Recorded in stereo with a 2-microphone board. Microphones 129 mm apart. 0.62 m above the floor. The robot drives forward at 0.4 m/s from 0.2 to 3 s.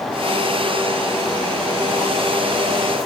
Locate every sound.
Only background noise.